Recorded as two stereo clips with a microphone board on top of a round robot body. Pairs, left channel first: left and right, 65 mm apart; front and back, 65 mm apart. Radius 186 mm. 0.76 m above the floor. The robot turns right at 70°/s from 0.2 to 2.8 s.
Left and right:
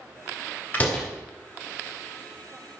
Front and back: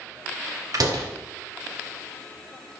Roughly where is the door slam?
Behind left.